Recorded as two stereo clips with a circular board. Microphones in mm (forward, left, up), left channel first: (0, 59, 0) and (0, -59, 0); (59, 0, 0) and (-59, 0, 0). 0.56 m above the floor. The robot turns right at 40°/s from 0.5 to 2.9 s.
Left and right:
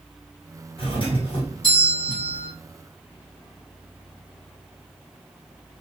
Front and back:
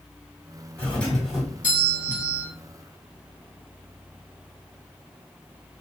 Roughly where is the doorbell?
Left.